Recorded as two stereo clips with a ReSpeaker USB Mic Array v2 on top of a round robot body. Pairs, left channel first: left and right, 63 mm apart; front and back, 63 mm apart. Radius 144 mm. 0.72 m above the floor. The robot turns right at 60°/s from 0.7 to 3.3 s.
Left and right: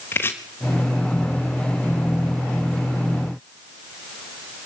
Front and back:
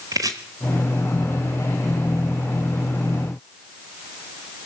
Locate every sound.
0.1 s chopping: 145° left, 0.8 m